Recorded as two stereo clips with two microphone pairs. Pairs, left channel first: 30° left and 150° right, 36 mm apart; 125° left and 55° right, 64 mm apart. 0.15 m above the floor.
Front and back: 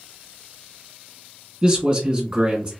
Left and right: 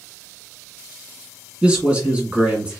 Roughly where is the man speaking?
Right.